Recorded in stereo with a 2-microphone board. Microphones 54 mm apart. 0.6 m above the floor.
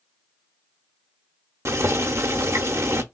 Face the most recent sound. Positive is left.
turn(degrees=-60)  # may be behind; listen again after turning